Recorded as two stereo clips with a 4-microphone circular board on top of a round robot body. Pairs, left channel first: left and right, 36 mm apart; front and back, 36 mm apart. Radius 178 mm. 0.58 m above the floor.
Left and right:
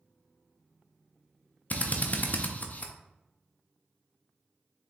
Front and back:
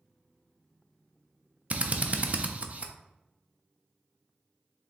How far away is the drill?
About 0.6 m.